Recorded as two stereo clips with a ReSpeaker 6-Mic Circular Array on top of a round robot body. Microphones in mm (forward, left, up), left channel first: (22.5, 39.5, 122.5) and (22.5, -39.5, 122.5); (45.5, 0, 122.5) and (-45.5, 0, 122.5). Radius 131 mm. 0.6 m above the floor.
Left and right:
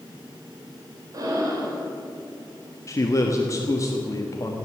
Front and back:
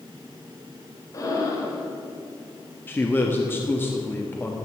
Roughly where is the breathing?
Ahead right.